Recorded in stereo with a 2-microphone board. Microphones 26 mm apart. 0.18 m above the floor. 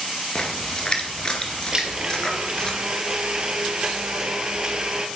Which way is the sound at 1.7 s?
30° right (ahead or behind).